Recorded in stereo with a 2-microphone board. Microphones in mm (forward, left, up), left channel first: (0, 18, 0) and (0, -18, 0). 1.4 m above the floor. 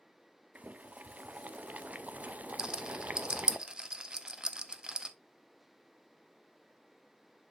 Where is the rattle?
25° right (ahead or behind), 0.6 m.